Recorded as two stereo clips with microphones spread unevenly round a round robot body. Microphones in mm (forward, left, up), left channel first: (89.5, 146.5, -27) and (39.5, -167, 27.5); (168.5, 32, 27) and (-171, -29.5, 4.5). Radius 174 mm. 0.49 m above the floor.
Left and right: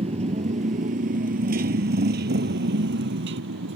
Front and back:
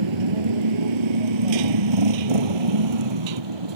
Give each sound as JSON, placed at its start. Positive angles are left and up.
{"t": 0.0, "sound": "a motorcycle", "azimuth_deg": -170}